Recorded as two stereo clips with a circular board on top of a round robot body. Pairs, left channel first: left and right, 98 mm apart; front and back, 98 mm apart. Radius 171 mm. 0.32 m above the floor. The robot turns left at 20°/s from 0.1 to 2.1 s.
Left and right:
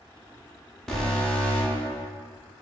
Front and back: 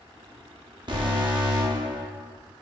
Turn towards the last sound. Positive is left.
turn(degrees=150)